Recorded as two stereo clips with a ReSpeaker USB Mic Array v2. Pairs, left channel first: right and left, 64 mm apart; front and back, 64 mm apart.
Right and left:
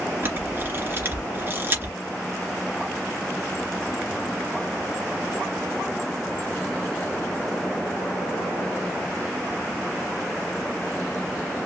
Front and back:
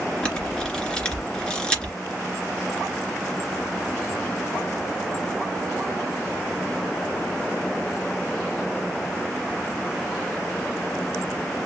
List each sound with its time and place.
0.2 s a camera shutter: 70° left, 2 m